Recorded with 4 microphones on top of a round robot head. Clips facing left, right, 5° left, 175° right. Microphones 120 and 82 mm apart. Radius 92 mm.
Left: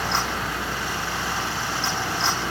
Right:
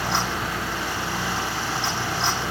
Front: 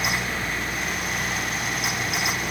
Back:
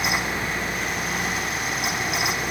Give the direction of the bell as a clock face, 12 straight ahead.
No bell in this recording.